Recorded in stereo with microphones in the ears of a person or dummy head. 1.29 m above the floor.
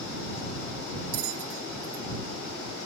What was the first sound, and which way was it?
A bell, 75° right (ahead or behind).